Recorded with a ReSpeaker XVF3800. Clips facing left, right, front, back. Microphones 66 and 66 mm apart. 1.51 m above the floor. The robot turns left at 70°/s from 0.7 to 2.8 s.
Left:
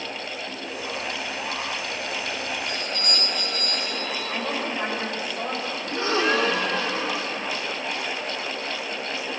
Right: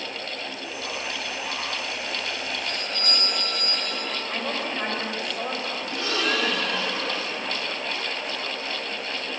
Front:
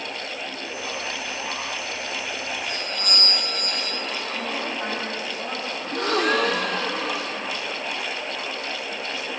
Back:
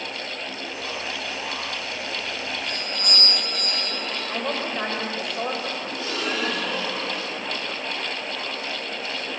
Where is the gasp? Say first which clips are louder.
Left 5 dB, front 10 dB; 30° left, 2.5 m.